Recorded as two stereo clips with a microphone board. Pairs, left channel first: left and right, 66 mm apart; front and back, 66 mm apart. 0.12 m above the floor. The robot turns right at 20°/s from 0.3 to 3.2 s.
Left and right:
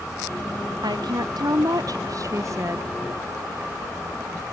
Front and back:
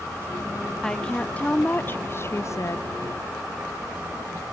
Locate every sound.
0.8 s a woman speaking: 80° right; by 2.9 s 40° right